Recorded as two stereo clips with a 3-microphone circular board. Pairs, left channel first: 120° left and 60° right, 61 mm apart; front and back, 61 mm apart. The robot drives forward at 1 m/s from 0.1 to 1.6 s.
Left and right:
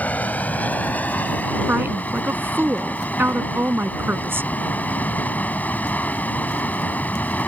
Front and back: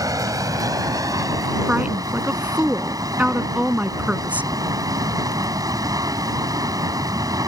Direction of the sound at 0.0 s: Straight behind.